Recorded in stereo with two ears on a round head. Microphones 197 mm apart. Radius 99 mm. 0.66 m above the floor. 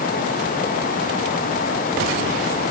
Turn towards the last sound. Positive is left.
No sound to turn to.